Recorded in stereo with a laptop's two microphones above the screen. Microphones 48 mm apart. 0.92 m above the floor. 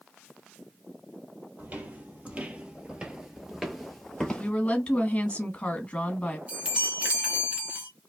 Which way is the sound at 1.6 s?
35° right (ahead or behind).